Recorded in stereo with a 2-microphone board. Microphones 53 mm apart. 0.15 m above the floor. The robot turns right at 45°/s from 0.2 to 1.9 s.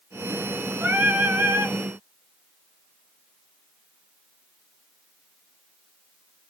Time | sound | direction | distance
0.8 | singing | 145° right | 0.9 m